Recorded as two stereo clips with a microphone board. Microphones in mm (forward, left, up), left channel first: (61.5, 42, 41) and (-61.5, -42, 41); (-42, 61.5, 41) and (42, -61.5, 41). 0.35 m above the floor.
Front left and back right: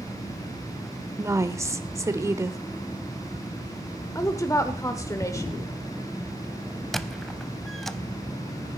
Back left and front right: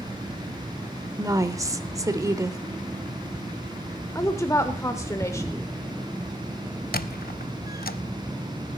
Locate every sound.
1.2 s a woman speaking: 100° right, 0.9 m
4.2 s a woman speaking: 75° left, 0.9 m
6.9 s a squeak: 120° left, 0.5 m